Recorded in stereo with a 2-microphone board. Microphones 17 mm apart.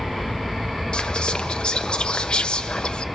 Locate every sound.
0.9 s whispering: 65° left (ahead or behind), 0.9 m